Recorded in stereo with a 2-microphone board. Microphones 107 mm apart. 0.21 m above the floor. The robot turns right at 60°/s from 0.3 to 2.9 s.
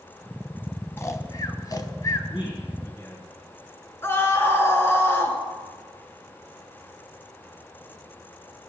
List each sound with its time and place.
1.0 s snoring: 25° left (ahead or behind), 1.1 m; by 2.2 s 30° left (ahead or behind), 1.1 m
2.3 s a man speaking: 120° left, 3.5 m; by 3.3 s 155° left, 3.5 m
4.0 s a scream: 25° left (ahead or behind), 2.5 m